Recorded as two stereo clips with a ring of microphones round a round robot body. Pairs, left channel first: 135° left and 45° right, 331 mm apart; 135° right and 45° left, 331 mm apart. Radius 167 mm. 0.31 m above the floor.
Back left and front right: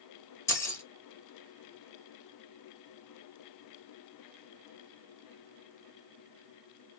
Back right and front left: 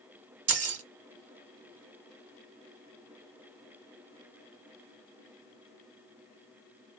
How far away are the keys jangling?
About 0.7 m.